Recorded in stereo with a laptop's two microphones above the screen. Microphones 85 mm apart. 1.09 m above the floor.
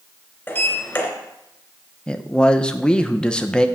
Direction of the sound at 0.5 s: 25° left (ahead or behind).